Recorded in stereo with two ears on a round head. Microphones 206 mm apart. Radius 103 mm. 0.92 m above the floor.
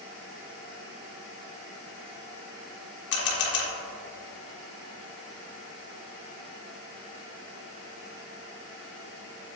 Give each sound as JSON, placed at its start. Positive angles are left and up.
{"t": 3.1, "sound": "a camera shutter", "side_deg": 50, "distance_m": 1.4}